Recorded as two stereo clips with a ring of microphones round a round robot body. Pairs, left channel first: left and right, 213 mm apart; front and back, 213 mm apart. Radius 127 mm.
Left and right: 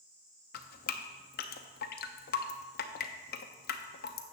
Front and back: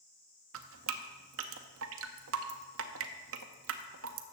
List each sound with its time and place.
0.5 s dripping: 145° left, 0.5 m